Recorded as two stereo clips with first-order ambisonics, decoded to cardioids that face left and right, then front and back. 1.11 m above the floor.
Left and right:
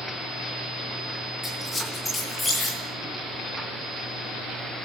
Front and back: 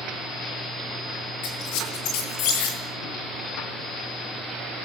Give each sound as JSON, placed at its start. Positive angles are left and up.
{"t": 1.4, "sound": "a squeak", "azimuth_deg": 5, "distance_m": 8.0}